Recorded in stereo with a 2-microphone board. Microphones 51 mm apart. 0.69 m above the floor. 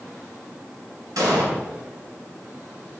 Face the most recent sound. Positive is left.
turn(degrees=-85)